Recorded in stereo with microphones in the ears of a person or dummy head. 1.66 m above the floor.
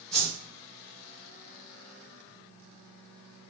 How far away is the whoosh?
About 1.1 m.